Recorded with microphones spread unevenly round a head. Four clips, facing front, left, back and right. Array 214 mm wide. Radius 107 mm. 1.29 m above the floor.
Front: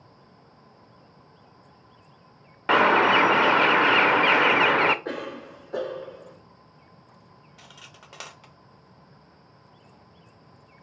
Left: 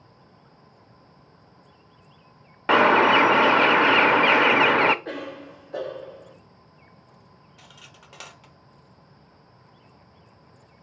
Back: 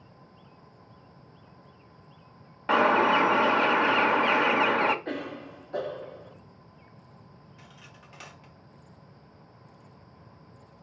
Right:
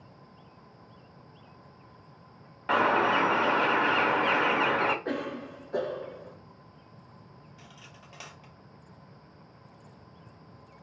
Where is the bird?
60° left, 0.6 m.